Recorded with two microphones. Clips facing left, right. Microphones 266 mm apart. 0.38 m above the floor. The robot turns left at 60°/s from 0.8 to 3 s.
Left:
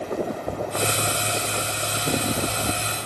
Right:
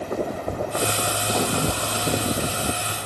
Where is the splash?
75° right; by 2.7 s 165° right.